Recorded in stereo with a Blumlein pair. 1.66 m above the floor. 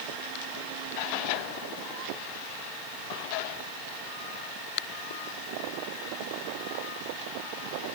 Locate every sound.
Only background noise.